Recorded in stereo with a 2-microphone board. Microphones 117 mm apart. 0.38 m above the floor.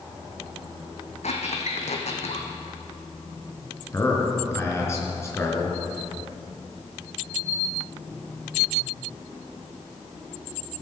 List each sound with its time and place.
1.2 s a squeak: 75° left (ahead or behind), 2 m
3.9 s a man speaking: 25° left (ahead or behind), 4 m